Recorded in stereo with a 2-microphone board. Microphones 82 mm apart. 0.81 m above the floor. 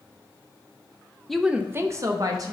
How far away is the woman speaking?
About 0.5 m.